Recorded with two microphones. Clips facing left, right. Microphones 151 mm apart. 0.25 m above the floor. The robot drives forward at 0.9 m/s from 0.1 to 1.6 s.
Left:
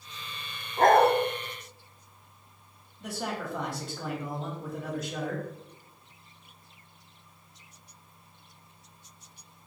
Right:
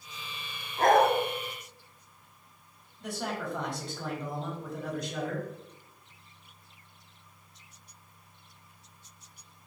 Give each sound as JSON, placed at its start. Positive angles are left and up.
{"t": 0.8, "sound": "a dog barking", "side_deg": 55, "distance_m": 0.6}
{"t": 3.0, "sound": "a man speaking", "side_deg": 0, "distance_m": 1.0}